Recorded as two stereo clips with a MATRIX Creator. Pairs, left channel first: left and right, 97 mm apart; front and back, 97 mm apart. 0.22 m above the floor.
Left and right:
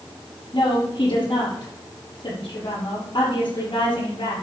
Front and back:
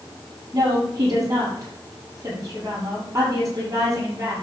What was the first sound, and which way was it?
A woman speaking, 125° left.